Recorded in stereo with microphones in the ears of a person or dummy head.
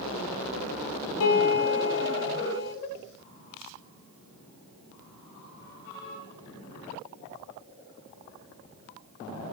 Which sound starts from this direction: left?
A piano, at 1.2 s.